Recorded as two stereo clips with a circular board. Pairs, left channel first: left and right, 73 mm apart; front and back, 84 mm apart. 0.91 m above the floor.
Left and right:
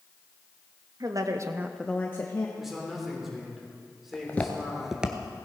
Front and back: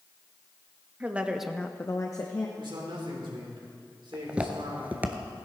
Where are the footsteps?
110° left, 1.0 m; by 5.2 s 140° right, 0.9 m.